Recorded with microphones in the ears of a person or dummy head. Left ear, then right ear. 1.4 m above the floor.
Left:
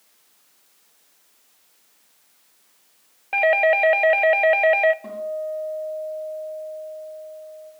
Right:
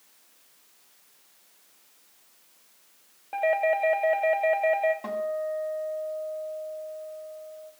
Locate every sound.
3.3 s a doorbell: 65° left (ahead or behind), 0.7 m
5.0 s a guitar: 35° right (ahead or behind), 2 m